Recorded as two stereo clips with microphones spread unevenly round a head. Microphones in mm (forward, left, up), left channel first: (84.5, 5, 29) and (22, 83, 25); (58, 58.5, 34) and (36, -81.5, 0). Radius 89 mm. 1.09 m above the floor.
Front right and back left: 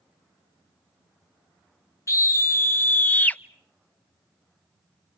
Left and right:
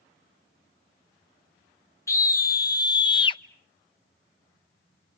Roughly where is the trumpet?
I don't hear a trumpet.